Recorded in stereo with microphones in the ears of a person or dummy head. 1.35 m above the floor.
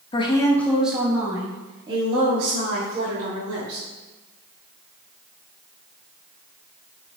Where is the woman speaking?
30° left (ahead or behind), 1.1 m; by 3.9 s 45° right (ahead or behind), 3.5 m.